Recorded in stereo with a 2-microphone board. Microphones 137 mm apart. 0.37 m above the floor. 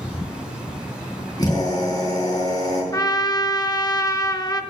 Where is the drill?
30° left (ahead or behind), 4 m.